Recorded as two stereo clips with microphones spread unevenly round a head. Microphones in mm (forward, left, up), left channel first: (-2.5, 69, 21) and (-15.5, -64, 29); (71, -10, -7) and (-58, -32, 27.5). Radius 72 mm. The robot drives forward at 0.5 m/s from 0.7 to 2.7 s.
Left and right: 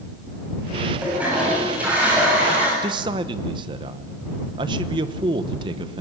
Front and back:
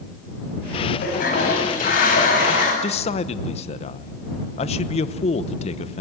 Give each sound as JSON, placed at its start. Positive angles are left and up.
{"t": 1.0, "sound": "a toilet flushing", "azimuth_deg": -15, "distance_m": 8.5}
{"t": 2.8, "sound": "a man speaking", "azimuth_deg": -40, "distance_m": 1.0}